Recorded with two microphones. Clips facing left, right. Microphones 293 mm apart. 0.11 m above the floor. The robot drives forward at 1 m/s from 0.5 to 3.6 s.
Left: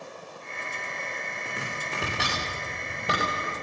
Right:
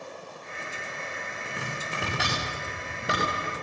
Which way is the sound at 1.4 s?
Centre (ahead or behind).